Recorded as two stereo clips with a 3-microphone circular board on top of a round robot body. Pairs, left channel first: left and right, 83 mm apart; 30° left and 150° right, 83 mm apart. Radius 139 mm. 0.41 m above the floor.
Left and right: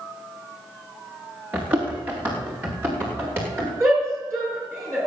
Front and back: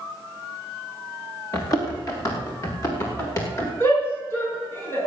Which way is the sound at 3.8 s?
25° right.